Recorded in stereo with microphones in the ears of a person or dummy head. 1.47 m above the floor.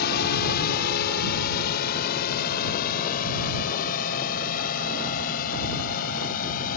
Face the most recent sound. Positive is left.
turn(degrees=50)  # may be behind; listen again after turning